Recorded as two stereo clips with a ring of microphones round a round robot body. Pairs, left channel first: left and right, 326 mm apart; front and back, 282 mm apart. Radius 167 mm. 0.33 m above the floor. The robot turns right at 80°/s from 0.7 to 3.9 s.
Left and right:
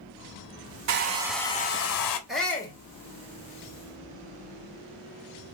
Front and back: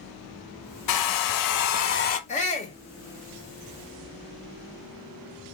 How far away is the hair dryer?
About 0.8 m.